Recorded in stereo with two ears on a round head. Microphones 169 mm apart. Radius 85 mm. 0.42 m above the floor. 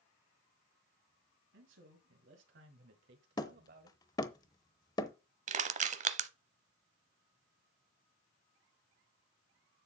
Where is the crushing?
40° right (ahead or behind), 0.7 m.